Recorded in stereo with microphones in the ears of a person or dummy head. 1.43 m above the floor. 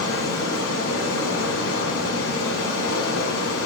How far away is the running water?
About 1.7 m.